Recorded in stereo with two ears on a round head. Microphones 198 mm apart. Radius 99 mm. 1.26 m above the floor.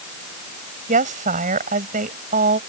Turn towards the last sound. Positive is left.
turn(degrees=-35)  # may be behind; listen again after turning